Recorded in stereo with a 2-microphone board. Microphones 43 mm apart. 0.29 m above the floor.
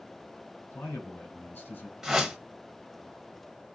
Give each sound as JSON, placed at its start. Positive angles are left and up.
{"t": 0.7, "sound": "a man speaking", "side_deg": 60, "distance_m": 3.0}
{"t": 2.0, "sound": "a whoosh", "side_deg": -10, "distance_m": 0.8}